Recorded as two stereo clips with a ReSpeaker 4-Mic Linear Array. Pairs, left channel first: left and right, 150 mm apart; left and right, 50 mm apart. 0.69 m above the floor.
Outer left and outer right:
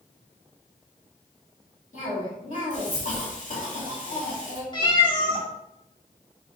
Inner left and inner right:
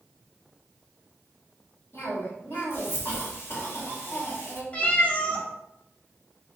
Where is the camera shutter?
No camera shutter in this recording.